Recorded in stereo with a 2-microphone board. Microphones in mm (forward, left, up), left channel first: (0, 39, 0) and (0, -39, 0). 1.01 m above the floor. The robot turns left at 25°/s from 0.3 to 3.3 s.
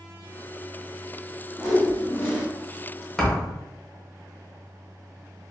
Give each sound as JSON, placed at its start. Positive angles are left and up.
{"t": 1.6, "sound": "a whoosh", "side_deg": 10, "distance_m": 0.9}
{"t": 3.2, "sound": "a thud", "side_deg": 5, "distance_m": 0.9}